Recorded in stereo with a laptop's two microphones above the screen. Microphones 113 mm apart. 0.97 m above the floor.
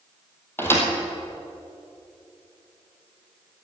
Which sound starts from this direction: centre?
A thud, at 0.6 s.